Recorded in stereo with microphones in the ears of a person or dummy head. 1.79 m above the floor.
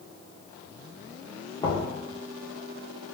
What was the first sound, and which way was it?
Knocking, 35° left (ahead or behind).